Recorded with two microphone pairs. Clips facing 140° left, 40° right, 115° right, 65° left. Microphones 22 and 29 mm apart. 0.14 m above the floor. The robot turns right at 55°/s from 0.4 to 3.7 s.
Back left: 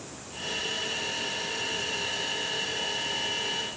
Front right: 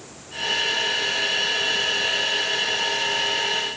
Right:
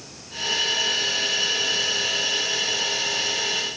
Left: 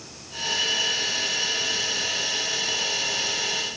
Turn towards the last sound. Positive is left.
No sound to turn to.